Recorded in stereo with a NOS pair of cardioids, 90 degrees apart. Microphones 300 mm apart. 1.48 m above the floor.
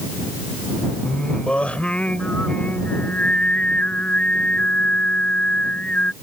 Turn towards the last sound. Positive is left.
turn(degrees=5)